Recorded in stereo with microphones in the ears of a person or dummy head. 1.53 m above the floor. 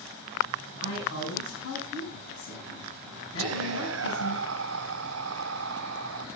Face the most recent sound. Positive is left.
turn(degrees=-75)  # may be behind; listen again after turning